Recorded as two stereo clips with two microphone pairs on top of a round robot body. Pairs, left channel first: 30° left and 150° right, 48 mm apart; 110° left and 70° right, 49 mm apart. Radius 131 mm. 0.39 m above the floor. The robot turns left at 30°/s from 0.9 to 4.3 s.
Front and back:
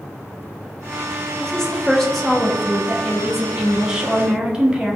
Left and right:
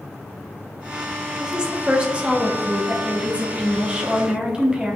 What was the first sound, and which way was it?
A woman speaking, 25° right.